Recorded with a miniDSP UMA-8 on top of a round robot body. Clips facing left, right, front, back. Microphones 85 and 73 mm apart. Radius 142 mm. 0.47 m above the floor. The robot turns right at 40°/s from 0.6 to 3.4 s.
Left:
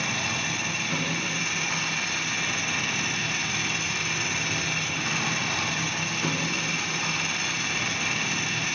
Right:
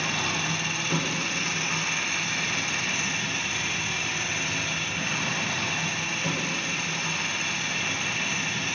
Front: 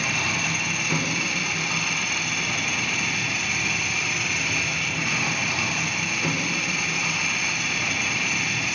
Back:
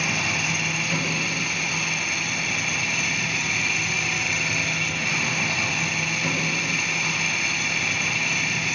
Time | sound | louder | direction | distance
0.0 | an engine running | right 1 dB, even | 40° right | 6 m